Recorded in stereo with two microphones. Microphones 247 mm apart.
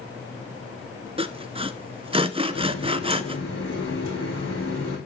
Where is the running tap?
60° left (ahead or behind), 6.5 m.